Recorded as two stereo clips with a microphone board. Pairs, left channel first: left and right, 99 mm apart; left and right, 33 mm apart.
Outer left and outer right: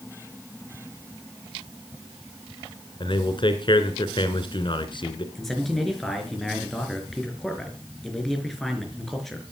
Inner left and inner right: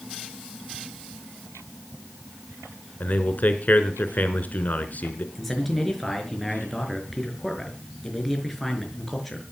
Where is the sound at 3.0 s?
55° left (ahead or behind), 2.5 m.